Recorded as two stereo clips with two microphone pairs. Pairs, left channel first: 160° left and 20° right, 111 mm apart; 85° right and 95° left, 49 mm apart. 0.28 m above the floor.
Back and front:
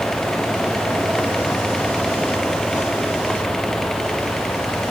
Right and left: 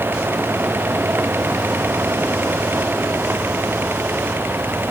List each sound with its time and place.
Only background noise.